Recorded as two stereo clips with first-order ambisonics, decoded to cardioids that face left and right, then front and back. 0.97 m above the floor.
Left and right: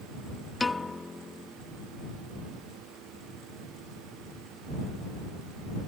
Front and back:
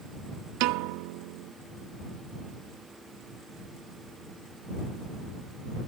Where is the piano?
170° left.